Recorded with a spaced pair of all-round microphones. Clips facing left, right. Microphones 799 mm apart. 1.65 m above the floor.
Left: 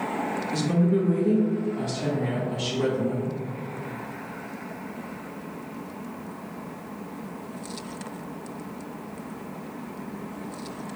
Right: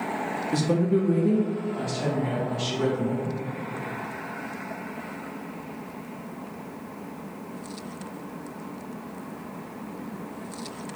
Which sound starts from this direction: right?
A woman speaking, at 0.5 s.